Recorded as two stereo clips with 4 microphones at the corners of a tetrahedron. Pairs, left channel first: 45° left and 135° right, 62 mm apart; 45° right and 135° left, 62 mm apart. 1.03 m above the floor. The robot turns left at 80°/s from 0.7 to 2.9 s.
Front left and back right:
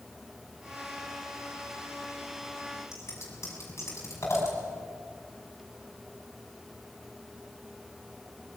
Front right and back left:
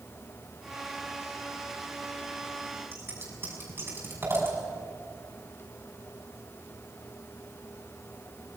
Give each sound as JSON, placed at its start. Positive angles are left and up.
{"t": 2.9, "sound": "scissors", "azimuth_deg": 85, "distance_m": 6.5}